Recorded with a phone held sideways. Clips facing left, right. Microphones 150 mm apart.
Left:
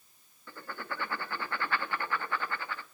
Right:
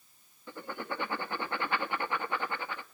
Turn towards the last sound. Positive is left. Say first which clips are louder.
# right 3 dB
turn(degrees=-20)  # may be behind; listen again after turning